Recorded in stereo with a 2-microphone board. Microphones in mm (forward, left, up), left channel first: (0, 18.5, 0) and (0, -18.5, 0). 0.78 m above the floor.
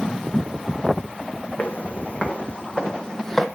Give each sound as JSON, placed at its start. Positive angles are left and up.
{"t": 1.6, "sound": "footsteps", "side_deg": 45, "distance_m": 1.9}